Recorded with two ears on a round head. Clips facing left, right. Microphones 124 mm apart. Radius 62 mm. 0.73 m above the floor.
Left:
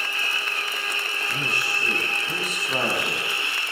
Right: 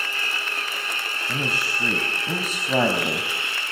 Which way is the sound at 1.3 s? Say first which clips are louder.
Right 3 dB; 70° right (ahead or behind).